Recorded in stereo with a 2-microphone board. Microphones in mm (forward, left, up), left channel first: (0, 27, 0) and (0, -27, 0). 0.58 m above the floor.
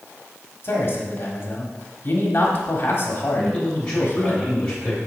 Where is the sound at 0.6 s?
45° left (ahead or behind), 1.6 m.